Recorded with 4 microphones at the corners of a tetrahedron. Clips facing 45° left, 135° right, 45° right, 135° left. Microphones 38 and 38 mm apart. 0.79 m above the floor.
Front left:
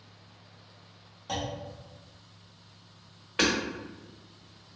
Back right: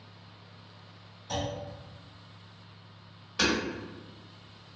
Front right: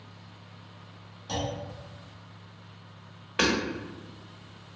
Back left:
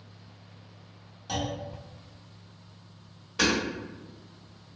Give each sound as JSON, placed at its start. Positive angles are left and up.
{"t": 1.3, "sound": "a clunk", "azimuth_deg": 50, "distance_m": 1.3}
{"t": 3.4, "sound": "hammering", "azimuth_deg": -5, "distance_m": 1.1}